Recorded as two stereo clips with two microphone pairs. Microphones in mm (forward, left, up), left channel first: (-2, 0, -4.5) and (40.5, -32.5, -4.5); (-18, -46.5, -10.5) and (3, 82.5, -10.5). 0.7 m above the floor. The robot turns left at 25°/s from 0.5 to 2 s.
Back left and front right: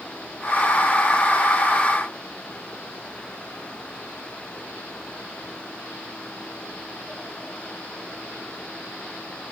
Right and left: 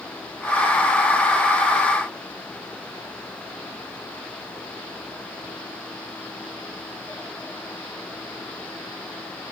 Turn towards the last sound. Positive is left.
No sound to turn to.